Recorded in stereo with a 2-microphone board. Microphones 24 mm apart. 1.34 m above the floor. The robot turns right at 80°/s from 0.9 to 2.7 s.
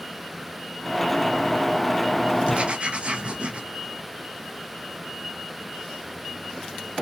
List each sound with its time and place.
2.5 s writing: 50° right (ahead or behind), 0.5 m; by 3.6 s 45° right (ahead or behind), 0.5 m